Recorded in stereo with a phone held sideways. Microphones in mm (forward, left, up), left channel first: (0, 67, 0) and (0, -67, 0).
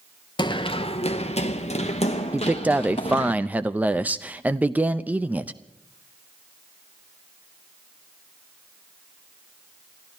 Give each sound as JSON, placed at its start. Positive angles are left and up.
{"t": 0.4, "sound": "running footsteps", "side_deg": 35, "distance_m": 1.1}
{"t": 2.3, "sound": "a man speaking", "side_deg": -10, "distance_m": 0.6}